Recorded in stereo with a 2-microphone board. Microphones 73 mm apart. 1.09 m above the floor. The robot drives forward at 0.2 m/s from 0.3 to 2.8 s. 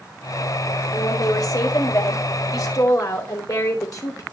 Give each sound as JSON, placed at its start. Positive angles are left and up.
{"t": 0.9, "sound": "a woman speaking", "side_deg": 60, "distance_m": 4.0}